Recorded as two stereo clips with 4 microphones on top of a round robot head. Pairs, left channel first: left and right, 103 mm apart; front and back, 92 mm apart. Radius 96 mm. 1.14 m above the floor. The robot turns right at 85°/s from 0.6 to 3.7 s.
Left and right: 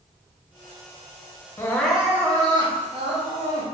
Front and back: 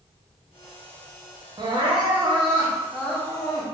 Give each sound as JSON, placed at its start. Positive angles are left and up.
{"t": 1.6, "sound": "crying", "azimuth_deg": 150, "distance_m": 1.2}